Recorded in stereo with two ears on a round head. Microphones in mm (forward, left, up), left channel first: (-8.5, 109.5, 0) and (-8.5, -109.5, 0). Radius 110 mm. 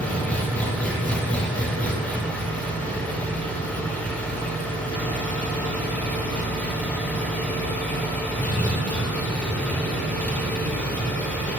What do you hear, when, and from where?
0.0 s an engine running: 5° left (ahead or behind), 3.5 m